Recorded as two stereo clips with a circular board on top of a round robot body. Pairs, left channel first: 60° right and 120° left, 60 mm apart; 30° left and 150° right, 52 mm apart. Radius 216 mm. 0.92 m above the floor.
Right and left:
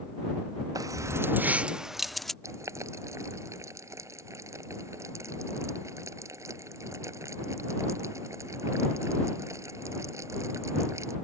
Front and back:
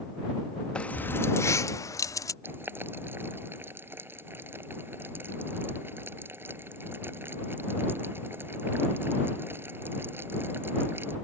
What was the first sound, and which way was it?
Keys jangling, 100° left.